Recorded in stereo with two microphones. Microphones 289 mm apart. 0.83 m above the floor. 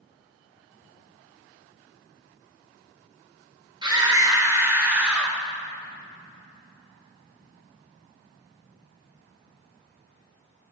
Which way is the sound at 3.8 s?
15° right (ahead or behind).